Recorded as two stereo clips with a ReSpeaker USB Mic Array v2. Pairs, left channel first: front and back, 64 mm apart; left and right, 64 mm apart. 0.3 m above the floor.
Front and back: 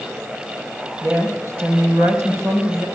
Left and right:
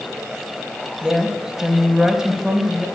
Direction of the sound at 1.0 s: 170° right.